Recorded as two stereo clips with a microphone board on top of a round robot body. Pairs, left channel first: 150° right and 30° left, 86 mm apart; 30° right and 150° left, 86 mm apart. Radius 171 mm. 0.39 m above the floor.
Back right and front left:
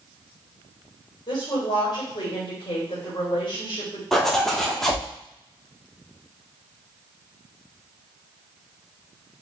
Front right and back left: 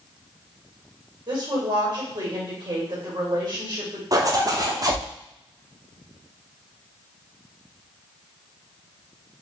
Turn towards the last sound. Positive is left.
turn(degrees=125)